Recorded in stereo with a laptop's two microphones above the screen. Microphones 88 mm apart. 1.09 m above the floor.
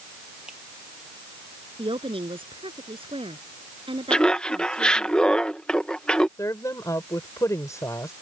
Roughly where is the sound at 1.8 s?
Right.